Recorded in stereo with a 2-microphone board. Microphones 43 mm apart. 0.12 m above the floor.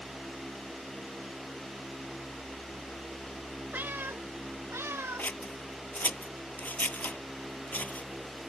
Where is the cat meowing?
45° right (ahead or behind); by 5.3 s 75° right (ahead or behind).